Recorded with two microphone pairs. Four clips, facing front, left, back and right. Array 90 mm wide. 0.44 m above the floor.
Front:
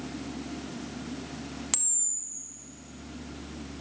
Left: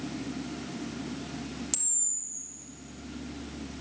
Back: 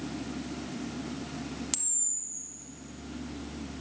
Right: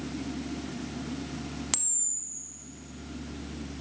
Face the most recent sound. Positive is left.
turn(degrees=-45)